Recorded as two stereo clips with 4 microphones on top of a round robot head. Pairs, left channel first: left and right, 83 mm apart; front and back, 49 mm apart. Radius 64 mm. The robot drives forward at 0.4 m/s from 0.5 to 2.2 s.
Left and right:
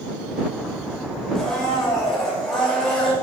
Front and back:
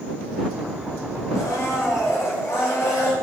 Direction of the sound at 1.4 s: 5° left.